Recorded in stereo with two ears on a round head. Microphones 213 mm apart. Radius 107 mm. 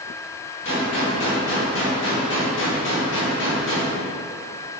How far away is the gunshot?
About 1.7 m.